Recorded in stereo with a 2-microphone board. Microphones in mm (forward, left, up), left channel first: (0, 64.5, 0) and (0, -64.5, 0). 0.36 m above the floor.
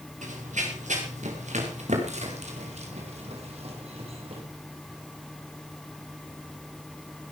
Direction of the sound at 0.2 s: 80° right.